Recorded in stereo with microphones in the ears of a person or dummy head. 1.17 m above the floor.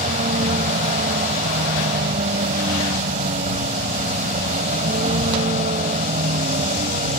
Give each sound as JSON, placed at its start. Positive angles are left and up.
{"t": 0.0, "sound": "a vehicle", "side_deg": -40}